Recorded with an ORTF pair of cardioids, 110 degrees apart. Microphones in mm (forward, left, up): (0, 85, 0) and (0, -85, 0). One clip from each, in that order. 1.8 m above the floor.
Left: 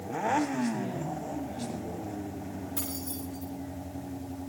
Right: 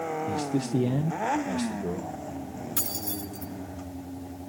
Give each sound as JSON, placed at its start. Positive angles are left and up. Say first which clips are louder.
{"t": 0.3, "sound": "a man speaking", "louder": "left 1 dB", "azimuth_deg": -65, "distance_m": 1.2}
{"t": 2.8, "sound": "keys jangling", "louder": "right 7 dB", "azimuth_deg": -50, "distance_m": 8.5}